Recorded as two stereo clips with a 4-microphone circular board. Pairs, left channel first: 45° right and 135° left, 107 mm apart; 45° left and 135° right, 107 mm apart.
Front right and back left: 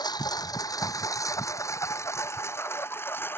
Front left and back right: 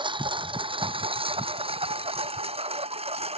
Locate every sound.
0.0 s a lawn mower: 95° right; by 3.4 s 115° right